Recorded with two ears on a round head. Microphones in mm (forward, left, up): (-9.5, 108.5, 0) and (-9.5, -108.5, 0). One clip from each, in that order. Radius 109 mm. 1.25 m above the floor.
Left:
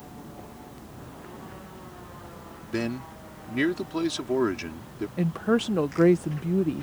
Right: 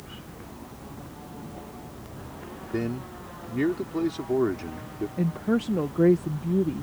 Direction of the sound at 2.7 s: 75° left (ahead or behind).